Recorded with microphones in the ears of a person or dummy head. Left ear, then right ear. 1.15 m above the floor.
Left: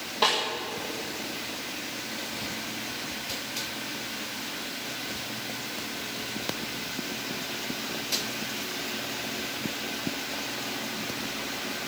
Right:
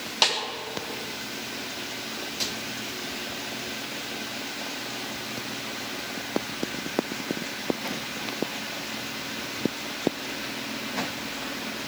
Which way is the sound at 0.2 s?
65° right (ahead or behind).